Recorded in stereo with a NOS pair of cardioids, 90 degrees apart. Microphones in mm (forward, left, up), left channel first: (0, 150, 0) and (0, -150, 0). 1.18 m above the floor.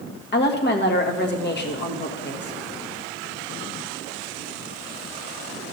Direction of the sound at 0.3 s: 35° left.